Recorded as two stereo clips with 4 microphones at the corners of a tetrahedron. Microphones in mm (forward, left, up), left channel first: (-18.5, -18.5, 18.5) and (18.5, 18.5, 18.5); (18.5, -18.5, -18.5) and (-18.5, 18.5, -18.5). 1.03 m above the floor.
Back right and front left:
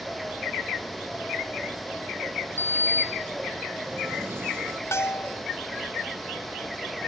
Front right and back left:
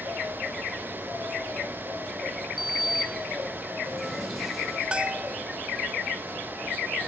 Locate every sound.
2.6 s a sliding door: 45° left
4.9 s a bell: 155° right